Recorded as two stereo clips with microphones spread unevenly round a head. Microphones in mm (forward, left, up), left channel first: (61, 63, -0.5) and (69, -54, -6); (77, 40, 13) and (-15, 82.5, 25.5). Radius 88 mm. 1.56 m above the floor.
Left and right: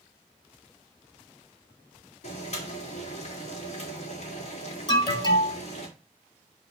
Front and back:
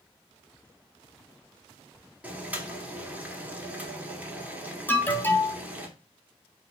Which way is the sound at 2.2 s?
85° left.